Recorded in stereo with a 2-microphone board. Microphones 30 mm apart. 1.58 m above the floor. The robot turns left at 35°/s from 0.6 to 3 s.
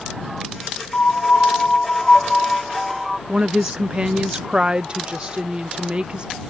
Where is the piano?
65° left; by 3.2 s 5° right.